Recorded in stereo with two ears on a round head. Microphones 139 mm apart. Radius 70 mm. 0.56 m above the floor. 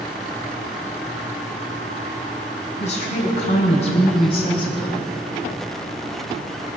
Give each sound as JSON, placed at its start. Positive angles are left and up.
{"t": 2.8, "sound": "a woman speaking", "side_deg": 45, "distance_m": 5.5}